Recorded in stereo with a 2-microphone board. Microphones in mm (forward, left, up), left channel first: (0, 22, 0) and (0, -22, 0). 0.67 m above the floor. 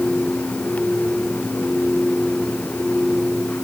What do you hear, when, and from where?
Only background noise.